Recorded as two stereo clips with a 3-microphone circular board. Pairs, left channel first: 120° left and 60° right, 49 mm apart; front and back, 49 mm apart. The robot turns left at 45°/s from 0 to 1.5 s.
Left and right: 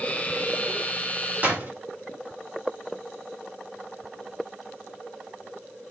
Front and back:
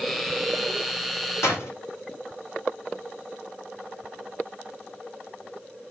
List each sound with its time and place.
1.4 s a door slam: 5° right, 3 m